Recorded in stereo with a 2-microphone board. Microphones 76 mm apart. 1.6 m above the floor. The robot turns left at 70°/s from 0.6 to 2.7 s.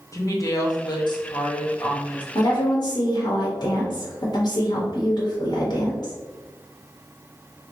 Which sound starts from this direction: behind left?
A woman speaking, at 0.1 s.